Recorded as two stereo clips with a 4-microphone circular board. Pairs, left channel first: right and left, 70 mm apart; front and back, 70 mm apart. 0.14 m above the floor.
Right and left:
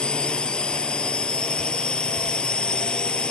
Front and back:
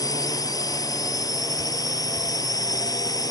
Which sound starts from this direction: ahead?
A drone, at 0.0 s.